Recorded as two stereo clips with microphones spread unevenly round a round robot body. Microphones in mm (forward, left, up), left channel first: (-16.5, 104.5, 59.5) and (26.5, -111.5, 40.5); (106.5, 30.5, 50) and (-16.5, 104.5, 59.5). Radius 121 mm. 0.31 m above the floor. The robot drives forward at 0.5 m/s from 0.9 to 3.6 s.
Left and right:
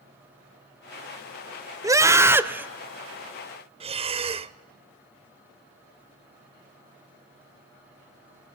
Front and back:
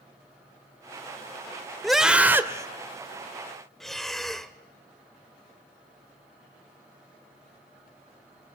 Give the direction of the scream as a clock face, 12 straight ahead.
4 o'clock.